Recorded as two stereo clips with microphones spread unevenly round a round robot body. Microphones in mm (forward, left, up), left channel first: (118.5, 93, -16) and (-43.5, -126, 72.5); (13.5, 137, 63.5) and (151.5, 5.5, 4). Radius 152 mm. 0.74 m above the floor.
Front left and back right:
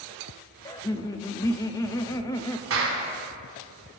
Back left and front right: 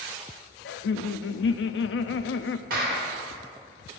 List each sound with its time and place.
0.7 s laughter: 120° left, 0.7 m
2.7 s a clap: 80° right, 2 m